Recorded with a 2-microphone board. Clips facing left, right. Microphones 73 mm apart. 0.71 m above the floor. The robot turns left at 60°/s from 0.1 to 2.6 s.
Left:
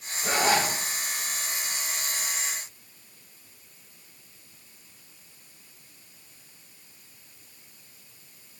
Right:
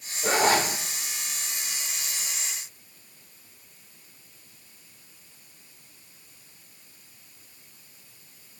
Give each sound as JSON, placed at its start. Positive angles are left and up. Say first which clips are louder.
{"t": 0.2, "sound": "a zipper", "louder": "right 2 dB", "side_deg": -65, "distance_m": 1.3}